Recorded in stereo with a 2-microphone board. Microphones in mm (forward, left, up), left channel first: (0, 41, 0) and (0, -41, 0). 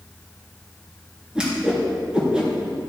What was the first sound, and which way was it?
A whoosh, 10° right (ahead or behind).